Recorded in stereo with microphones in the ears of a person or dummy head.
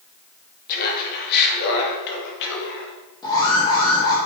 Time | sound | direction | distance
0.7 | laughter | 45° left (ahead or behind) | 2.5 m
3.2 | an alarm | 20° left (ahead or behind) | 3.5 m